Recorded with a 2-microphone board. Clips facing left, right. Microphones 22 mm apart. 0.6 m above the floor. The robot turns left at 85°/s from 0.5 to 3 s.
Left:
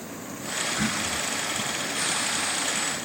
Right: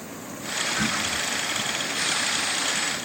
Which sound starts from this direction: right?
Throat clearing, at 0.8 s.